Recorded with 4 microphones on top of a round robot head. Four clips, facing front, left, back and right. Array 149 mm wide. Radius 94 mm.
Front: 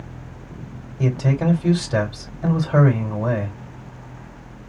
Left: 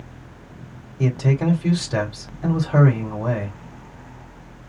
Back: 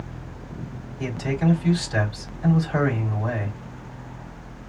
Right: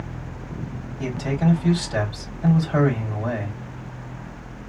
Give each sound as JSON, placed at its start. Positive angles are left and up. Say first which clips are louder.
{"t": 1.0, "sound": "a man speaking", "louder": "left 3 dB, front 4 dB", "azimuth_deg": 40, "distance_m": 4.5}